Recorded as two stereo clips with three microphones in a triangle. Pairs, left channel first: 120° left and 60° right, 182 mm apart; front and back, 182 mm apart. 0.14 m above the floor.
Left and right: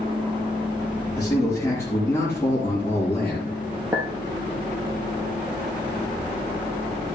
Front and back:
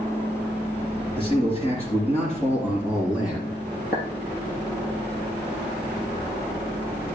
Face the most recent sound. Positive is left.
turn(degrees=15)